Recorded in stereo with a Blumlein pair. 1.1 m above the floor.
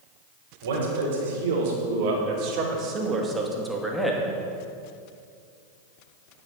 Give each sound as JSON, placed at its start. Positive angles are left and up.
{"t": 0.6, "sound": "a man speaking", "azimuth_deg": -65, "distance_m": 4.0}